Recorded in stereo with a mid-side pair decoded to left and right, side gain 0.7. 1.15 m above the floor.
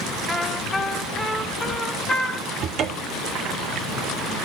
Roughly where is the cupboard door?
Ahead right.